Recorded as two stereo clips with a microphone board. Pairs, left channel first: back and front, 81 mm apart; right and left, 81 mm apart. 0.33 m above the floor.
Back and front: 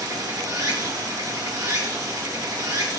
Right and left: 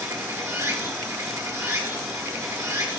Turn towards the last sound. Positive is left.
turn(degrees=40)